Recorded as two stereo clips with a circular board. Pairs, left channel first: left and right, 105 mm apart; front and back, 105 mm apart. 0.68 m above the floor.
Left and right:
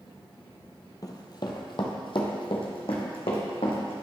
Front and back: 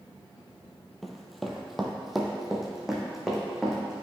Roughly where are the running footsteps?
Left.